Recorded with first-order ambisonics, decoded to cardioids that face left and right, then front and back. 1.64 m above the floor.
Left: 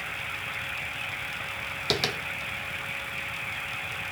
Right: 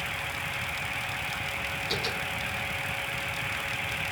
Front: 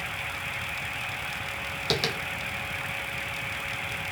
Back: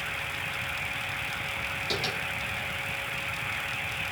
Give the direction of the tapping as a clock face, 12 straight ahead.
10 o'clock.